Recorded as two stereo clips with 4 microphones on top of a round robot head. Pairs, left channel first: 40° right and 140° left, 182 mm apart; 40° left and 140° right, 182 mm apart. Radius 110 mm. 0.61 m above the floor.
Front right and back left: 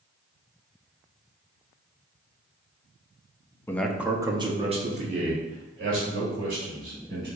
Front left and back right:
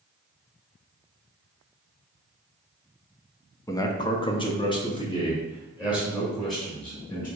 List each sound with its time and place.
3.7 s a man speaking: 10° left, 0.6 m; by 7.3 s 105° left, 2.5 m